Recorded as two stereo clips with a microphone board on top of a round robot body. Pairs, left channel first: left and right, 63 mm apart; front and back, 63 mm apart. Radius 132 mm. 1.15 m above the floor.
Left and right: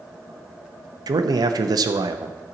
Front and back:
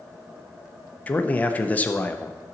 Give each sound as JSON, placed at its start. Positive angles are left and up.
{"t": 1.1, "sound": "a man speaking", "azimuth_deg": -70, "distance_m": 0.6}